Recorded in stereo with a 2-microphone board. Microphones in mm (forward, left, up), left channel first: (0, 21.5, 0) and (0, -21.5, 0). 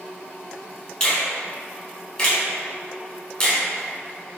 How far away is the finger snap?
About 1.4 m.